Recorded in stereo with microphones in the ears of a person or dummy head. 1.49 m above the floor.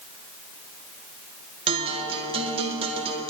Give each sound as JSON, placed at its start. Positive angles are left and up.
{"t": 1.7, "sound": "a guitar", "side_deg": -30, "distance_m": 1.7}